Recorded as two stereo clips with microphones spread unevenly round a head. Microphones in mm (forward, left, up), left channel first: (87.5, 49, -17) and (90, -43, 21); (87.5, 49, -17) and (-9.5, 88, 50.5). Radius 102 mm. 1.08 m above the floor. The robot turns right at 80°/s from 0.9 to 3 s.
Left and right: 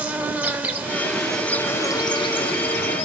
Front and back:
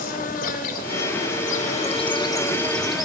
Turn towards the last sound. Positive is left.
turn(degrees=115)